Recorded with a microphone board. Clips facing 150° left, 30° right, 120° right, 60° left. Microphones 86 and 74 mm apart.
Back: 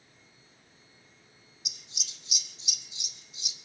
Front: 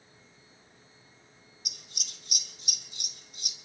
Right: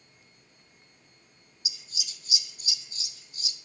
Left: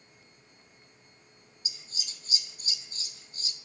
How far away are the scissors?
About 1.1 m.